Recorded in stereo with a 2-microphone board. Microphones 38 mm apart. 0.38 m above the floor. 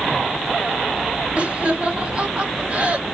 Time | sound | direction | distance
1.4 | laughter | 35° right (ahead or behind) | 1.7 m